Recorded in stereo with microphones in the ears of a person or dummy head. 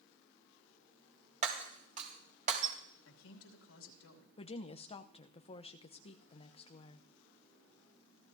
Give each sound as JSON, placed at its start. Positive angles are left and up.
{"t": 1.4, "sound": "breaking glass", "side_deg": -45, "distance_m": 3.0}
{"t": 3.0, "sound": "a man speaking", "side_deg": 90, "distance_m": 3.0}
{"t": 4.4, "sound": "a woman speaking", "side_deg": 35, "distance_m": 0.8}